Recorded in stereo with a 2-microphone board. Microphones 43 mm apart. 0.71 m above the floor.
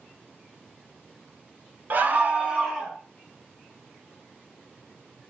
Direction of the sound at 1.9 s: 45° right (ahead or behind).